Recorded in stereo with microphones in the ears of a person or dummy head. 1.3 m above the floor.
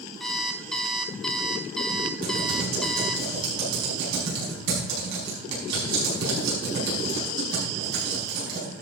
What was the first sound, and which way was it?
An alarm clock, centre (ahead or behind).